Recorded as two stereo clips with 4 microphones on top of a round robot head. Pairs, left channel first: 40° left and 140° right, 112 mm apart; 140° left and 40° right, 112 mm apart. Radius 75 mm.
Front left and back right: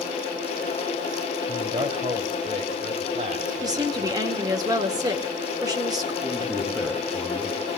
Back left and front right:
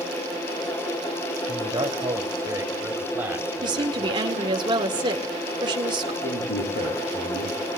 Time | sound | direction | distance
1.5 | a man speaking | 85° right | 2.5 m
3.6 | a woman speaking | 85° right | 1.9 m
6.2 | a man speaking | 135° left | 10 m